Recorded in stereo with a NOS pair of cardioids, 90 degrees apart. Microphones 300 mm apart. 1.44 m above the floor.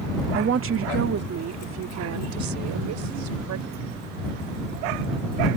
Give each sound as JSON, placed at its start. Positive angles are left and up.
{"t": 0.3, "sound": "a woman speaking", "azimuth_deg": -35}